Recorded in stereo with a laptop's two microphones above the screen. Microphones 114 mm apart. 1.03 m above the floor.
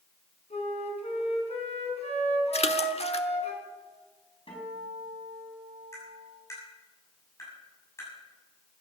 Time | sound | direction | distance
0.5 | a flute | 70° left (ahead or behind) | 4 m
2.5 | a splash | 65° left (ahead or behind) | 1.1 m
4.5 | a guitar | 55° left (ahead or behind) | 5 m
5.9 | tapping | 25° left (ahead or behind) | 7 m